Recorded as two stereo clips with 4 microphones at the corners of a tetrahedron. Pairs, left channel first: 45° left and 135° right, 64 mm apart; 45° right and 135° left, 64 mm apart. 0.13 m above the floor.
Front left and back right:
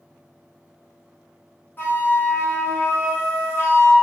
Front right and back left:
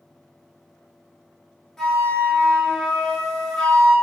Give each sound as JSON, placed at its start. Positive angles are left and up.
{"t": 1.8, "sound": "a flute", "azimuth_deg": 30, "distance_m": 1.2}